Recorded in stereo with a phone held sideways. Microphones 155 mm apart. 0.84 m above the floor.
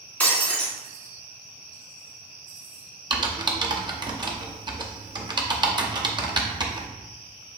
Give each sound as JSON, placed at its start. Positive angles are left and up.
{"t": 0.2, "sound": "breaking glass", "side_deg": 10, "distance_m": 1.6}
{"t": 3.1, "sound": "typing on a keyboard", "side_deg": -30, "distance_m": 0.6}